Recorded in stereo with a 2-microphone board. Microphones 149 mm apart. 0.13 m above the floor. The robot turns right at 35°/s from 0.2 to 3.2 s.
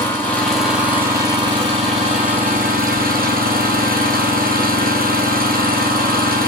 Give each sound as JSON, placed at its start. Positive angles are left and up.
{"t": 0.0, "sound": "an engine running", "azimuth_deg": 165, "distance_m": 1.5}